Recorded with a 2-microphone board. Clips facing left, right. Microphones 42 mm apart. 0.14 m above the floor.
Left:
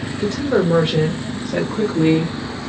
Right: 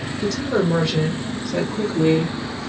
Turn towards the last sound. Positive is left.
turn(degrees=50)  # may be behind; listen again after turning